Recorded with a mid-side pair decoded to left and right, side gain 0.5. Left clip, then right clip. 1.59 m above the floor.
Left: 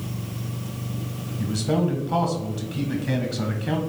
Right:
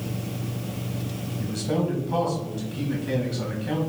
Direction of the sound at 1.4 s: 35° left.